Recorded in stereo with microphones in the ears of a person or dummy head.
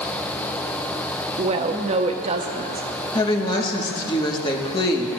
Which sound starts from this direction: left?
A woman speaking, at 3.1 s.